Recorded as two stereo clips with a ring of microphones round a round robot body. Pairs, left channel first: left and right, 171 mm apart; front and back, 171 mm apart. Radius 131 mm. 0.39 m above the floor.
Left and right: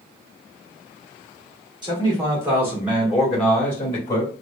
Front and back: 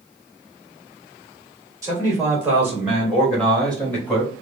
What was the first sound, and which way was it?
A man speaking, 125° right.